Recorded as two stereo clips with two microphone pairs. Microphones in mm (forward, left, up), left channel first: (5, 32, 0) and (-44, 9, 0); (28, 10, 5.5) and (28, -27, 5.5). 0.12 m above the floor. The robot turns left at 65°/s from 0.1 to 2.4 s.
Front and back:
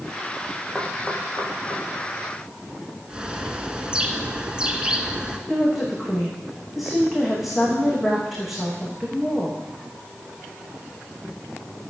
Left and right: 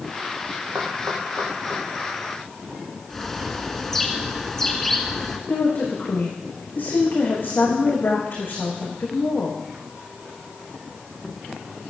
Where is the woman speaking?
120° left, 7.5 m.